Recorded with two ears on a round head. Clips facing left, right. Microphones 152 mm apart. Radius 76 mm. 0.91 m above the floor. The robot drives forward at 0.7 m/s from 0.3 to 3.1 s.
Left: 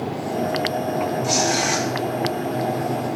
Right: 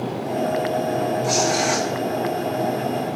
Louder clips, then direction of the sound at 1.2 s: Right 1 dB; centre (ahead or behind).